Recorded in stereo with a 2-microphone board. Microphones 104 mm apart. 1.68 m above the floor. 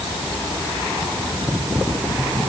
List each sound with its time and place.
Only background noise.